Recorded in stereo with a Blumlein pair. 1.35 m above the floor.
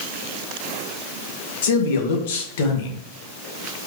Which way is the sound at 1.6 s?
55° left.